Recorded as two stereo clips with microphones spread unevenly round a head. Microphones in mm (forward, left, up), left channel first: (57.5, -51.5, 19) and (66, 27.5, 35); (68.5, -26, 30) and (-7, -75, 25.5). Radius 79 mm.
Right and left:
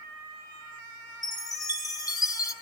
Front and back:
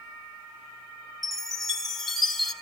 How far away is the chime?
About 3 m.